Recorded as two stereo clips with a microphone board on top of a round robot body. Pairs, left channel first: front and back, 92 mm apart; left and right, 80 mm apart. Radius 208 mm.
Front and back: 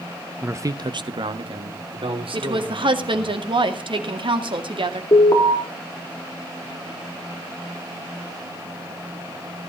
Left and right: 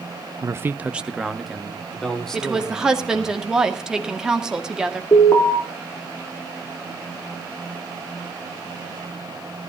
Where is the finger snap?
I don't hear a finger snap.